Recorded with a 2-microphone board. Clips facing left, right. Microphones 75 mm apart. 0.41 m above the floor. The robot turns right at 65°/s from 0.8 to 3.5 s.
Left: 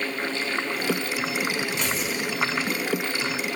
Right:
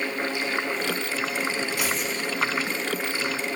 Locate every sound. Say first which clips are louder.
1.8 s tearing paper: even; 15° right, 3.5 m; by 2.3 s 20° left, 3.5 m